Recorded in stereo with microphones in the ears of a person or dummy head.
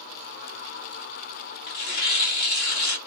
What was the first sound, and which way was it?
Tearing paper, 50° left (ahead or behind).